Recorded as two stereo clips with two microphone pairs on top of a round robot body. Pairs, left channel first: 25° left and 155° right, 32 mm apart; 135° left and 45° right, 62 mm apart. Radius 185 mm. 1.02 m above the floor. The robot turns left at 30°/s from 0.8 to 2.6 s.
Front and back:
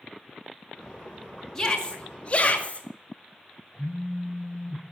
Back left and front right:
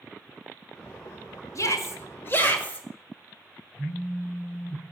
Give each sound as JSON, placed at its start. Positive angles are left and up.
{"t": 1.6, "sound": "a shout", "azimuth_deg": 100, "distance_m": 2.5}
{"t": 3.7, "sound": "a phone buzzing", "azimuth_deg": 100, "distance_m": 4.0}